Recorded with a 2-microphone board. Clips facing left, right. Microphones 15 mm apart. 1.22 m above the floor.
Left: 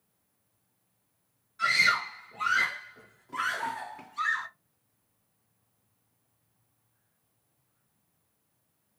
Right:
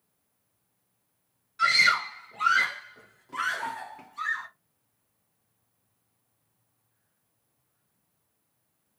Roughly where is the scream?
Right.